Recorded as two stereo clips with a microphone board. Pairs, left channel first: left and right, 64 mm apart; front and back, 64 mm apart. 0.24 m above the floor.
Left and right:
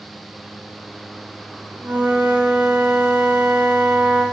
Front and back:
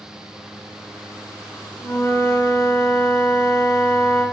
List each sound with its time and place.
1.8 s a flute: 25° right, 4 m